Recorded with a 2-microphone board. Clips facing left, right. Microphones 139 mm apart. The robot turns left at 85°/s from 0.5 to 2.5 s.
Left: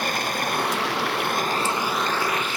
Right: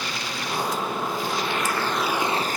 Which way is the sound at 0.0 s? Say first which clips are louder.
Left 5 dB; 130° left.